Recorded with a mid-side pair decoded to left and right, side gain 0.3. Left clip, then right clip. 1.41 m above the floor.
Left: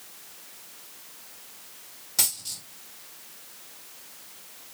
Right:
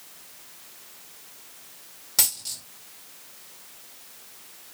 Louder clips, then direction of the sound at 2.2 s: Right 2 dB; 55° right.